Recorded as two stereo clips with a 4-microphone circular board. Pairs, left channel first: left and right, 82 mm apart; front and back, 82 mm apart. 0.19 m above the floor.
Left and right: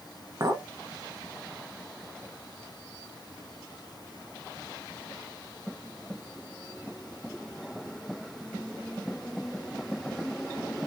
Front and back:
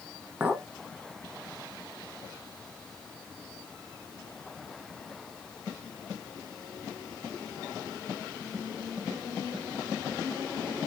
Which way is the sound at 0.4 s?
110° right.